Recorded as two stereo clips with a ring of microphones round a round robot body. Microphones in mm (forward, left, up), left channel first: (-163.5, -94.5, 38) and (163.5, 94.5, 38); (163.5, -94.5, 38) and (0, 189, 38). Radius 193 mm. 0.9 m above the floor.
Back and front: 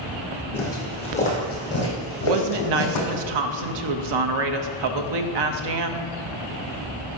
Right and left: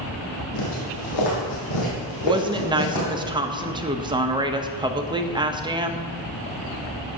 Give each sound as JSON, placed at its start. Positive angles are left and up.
{"t": 0.5, "sound": "footsteps", "azimuth_deg": -65, "distance_m": 2.5}
{"t": 2.2, "sound": "a woman speaking", "azimuth_deg": 45, "distance_m": 0.8}